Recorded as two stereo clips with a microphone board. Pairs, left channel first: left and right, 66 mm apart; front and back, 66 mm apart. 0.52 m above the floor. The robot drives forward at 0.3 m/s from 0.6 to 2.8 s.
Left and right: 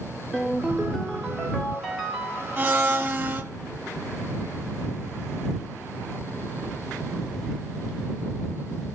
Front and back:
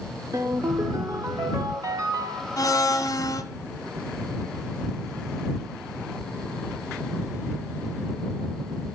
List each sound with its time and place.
0.3 s a ringtone: 175° right, 1.3 m
2.6 s a blender: 30° right, 1.0 m; by 3.4 s 35° right, 0.9 m